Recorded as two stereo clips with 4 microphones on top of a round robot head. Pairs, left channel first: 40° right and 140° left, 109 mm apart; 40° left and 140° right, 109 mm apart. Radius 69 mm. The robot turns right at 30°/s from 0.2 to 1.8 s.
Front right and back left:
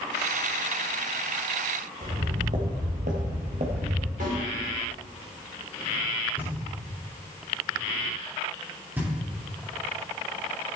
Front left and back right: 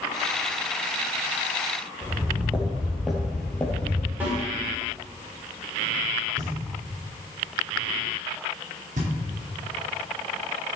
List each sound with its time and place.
2.0 s footsteps: 155° left, 2.5 m; by 4.1 s 110° left, 1.9 m
4.2 s a snare drum: 150° left, 4.5 m
6.4 s knocking: 150° right, 3 m